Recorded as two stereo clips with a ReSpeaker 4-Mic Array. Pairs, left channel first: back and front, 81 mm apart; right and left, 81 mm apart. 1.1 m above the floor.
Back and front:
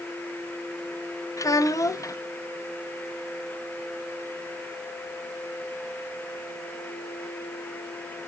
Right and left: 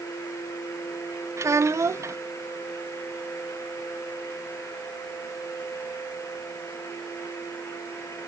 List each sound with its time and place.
1.4 s a child speaking: 140° left, 0.7 m